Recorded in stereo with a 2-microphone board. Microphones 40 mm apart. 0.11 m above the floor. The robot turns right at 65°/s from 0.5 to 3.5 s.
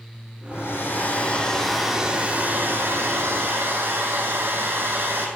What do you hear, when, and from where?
0.5 s a hair dryer: 100° left, 2.5 m; by 5.3 s 65° right, 2.5 m